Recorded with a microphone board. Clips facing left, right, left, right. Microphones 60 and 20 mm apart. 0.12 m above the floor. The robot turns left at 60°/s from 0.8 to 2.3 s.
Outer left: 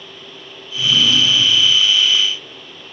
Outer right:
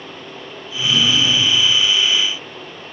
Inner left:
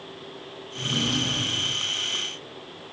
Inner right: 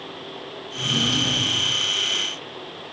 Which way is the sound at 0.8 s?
5° left.